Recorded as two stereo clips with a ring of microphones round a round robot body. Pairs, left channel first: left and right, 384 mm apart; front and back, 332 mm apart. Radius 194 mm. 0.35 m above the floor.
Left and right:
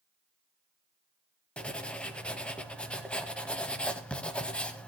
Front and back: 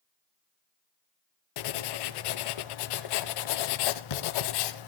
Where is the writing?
5° left, 0.7 m.